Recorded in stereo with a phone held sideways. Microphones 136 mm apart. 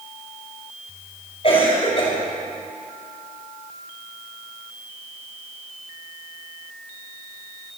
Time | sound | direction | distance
1.4 | a cough | 45° left (ahead or behind) | 5 m